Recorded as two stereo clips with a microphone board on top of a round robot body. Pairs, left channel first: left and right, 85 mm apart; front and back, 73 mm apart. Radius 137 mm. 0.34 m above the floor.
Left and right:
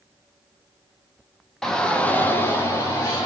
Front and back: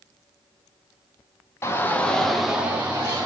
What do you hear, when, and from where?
1.6 s a shout: 5° left, 1.4 m; by 3.3 s 135° left, 1.7 m